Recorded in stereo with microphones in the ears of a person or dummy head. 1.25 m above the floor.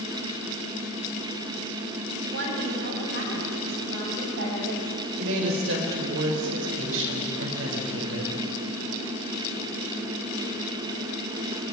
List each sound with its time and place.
2.2 s a woman speaking: 75° right (ahead or behind), 8 m
5.2 s a woman speaking: 75° right (ahead or behind), 6 m